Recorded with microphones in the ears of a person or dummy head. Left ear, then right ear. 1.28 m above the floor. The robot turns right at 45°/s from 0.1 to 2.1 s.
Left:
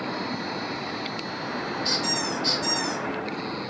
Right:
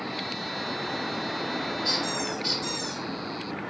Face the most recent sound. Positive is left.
turn(degrees=-5)  # may be behind; listen again after turning